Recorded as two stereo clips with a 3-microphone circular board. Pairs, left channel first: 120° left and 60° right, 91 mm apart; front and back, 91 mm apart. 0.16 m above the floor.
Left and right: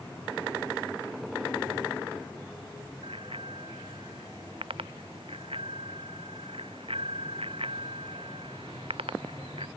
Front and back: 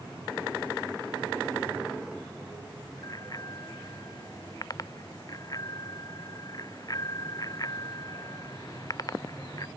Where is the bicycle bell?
50° right.